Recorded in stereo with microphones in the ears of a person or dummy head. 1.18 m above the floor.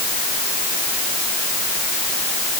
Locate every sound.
Only background noise.